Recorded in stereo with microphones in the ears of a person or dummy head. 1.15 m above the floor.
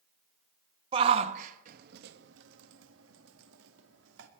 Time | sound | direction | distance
0.9 | a shout | 25° right (ahead or behind) | 1.2 m